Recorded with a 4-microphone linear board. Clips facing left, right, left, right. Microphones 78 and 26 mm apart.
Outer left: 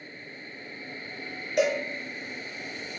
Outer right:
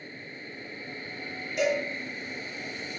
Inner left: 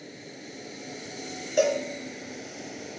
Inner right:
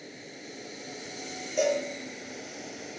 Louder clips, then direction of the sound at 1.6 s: Outer left 2 dB, inner left 3 dB; 70° left (ahead or behind).